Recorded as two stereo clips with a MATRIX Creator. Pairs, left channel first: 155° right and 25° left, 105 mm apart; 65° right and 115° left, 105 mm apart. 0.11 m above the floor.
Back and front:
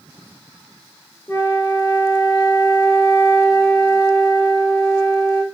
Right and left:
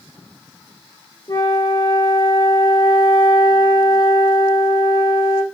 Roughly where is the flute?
Right.